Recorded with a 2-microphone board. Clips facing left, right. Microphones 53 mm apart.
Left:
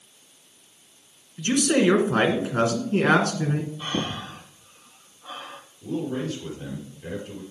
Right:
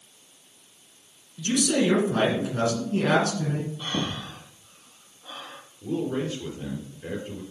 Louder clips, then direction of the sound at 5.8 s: Right 1 dB; 20° right (ahead or behind).